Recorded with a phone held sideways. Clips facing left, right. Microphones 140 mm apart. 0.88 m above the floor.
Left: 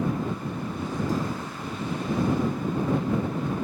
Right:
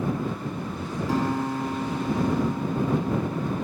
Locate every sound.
1.1 s a guitar: 75° right (ahead or behind)